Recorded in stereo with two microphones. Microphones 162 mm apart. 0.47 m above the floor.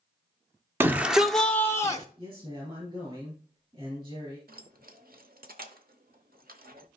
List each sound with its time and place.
0.8 s a shout: 15° right (ahead or behind), 0.8 m; by 2.0 s 25° left (ahead or behind), 0.8 m
2.2 s a man speaking: 35° right (ahead or behind), 4 m
4.5 s keys jangling: 65° right (ahead or behind), 1.0 m